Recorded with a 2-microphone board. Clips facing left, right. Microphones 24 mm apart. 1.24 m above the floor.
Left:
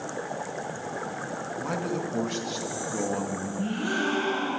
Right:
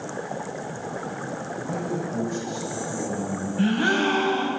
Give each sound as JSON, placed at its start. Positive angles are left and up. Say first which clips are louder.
{"t": 1.6, "sound": "a man speaking", "louder": "even", "side_deg": 65, "distance_m": 1.4}
{"t": 3.6, "sound": "a gasp", "louder": "right 7 dB", "side_deg": -65, "distance_m": 2.5}